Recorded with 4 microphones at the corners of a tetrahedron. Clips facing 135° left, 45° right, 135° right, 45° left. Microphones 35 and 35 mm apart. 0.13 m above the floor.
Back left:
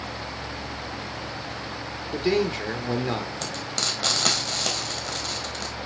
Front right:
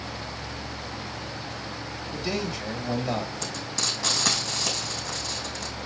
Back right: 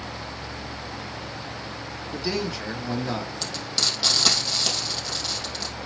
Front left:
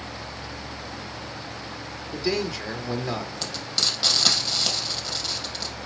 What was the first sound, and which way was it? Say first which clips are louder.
A man speaking: back left 7 dB, front left 2 dB; 135° left.